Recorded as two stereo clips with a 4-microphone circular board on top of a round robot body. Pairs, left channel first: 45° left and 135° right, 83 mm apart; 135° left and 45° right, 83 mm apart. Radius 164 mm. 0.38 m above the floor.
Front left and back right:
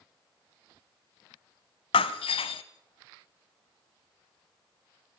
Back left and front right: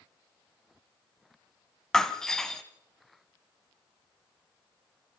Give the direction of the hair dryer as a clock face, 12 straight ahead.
No hair dryer in this recording.